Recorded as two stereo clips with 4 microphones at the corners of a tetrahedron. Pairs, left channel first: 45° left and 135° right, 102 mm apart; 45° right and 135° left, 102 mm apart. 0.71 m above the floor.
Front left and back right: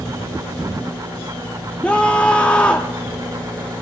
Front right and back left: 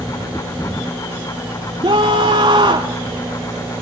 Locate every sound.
1.8 s a scream: 120° left, 1.3 m